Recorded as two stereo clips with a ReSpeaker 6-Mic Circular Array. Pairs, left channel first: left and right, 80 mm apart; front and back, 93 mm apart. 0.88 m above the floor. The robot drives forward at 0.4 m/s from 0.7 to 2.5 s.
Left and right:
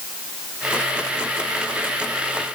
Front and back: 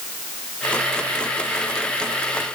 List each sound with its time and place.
Only background noise.